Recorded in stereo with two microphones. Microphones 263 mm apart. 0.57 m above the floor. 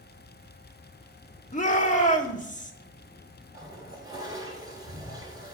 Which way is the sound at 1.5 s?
30° left (ahead or behind).